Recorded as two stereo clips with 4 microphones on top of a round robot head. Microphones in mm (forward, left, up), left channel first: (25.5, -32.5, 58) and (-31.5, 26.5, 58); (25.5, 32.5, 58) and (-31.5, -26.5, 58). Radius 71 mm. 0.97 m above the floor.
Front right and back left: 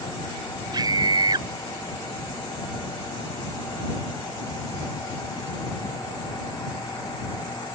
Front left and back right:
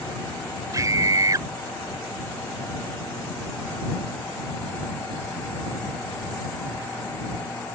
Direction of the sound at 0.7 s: 175° left.